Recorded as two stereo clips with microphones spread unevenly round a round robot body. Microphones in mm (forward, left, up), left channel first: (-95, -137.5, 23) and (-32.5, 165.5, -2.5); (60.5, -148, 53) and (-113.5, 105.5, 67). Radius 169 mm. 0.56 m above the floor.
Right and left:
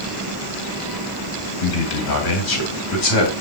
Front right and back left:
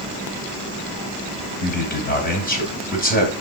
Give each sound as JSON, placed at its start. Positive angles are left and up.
{"t": 1.6, "sound": "a man speaking", "azimuth_deg": -115, "distance_m": 3.0}